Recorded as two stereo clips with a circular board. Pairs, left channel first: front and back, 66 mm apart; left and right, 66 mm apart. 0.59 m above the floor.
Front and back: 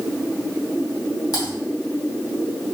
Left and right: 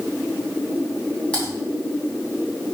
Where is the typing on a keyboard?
15° left, 3 m.